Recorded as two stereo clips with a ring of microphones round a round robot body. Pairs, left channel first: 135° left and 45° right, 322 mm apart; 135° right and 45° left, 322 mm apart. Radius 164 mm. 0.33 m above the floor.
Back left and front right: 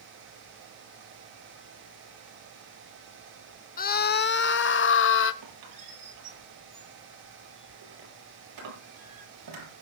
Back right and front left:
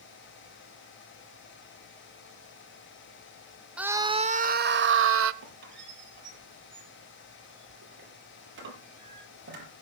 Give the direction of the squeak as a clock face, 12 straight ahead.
12 o'clock.